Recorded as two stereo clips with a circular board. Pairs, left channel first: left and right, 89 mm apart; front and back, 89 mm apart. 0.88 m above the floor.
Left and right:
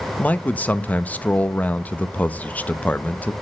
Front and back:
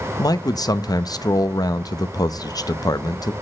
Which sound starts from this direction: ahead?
A man speaking, at 0.2 s.